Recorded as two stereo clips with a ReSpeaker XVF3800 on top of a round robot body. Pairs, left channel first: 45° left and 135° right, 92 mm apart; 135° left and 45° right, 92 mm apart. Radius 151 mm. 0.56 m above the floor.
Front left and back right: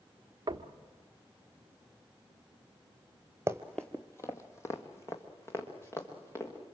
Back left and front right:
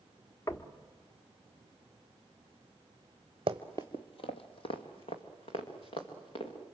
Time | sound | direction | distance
0.5 | knocking | 170° right | 1.2 m
3.5 | running footsteps | 75° right | 0.6 m